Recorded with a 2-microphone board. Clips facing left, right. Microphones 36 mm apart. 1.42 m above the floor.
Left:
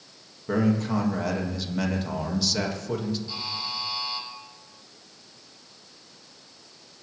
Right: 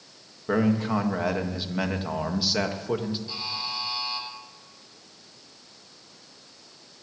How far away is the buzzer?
About 7 m.